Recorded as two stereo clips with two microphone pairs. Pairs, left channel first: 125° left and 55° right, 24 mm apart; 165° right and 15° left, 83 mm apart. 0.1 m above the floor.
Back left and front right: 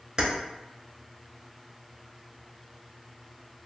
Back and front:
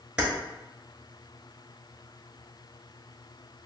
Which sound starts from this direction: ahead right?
Keys jangling, at 0.2 s.